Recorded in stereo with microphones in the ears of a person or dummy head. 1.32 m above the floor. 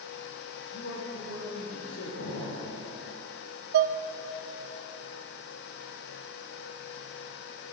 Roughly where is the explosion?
Left.